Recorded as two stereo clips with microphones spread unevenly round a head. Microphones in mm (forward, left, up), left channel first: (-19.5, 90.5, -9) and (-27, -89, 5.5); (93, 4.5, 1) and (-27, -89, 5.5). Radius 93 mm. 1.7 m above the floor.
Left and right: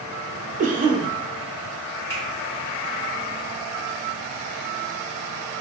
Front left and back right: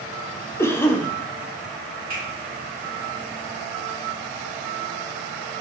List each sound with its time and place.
0.6 s a cough: 40° right, 0.7 m
2.1 s a finger snap: 170° left, 1.8 m